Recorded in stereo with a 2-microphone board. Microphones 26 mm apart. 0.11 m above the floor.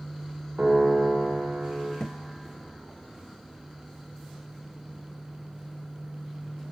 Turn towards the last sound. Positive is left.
turn(degrees=40)  # may be behind; listen again after turning